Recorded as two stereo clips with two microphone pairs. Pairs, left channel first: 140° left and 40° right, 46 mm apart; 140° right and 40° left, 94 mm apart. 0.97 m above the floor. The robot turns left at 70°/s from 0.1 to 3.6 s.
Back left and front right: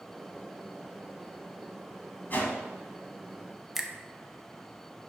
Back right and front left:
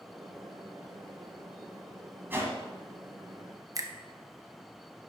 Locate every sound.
2.3 s a whoosh: 105° left, 1.3 m; by 2.6 s 85° left, 1.3 m
3.8 s a finger snap: 30° left, 0.5 m